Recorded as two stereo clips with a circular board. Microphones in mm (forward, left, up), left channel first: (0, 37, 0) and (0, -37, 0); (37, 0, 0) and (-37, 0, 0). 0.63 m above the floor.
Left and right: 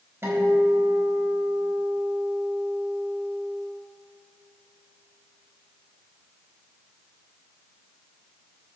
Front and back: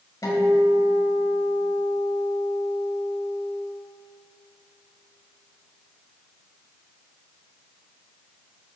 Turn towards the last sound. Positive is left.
turn(degrees=-40)